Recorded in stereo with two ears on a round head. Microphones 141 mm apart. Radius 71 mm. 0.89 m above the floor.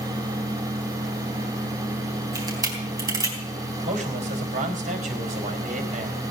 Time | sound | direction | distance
2.4 | a camera shutter | 25° right (ahead or behind) | 4 m
3.9 | a man speaking | 45° right (ahead or behind) | 4.5 m